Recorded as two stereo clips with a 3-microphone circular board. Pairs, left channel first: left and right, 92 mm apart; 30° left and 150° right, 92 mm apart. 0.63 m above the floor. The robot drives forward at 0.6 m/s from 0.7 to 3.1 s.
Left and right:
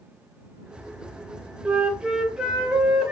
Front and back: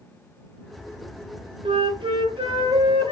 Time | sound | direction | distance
1.6 | a flute | 165° right | 0.5 m